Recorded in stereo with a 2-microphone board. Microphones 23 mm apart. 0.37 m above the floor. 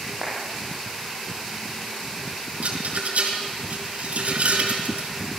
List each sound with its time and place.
0.2 s a clap: 20° right (ahead or behind), 9.5 m
2.6 s a rattle: 75° right (ahead or behind), 6 m